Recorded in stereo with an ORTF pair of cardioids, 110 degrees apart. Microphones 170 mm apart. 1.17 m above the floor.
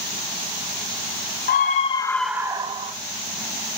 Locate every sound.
1.5 s a scream: 60° left, 0.9 m; by 2.9 s 45° right, 1.0 m